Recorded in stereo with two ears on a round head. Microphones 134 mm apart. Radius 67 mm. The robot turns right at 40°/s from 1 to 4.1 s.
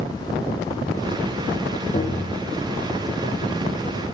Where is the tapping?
45° left (ahead or behind), 1.3 m; by 2.4 s 50° left (ahead or behind), 1.3 m.